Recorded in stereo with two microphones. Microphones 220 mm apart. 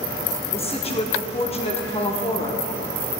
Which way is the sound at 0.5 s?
25° left (ahead or behind).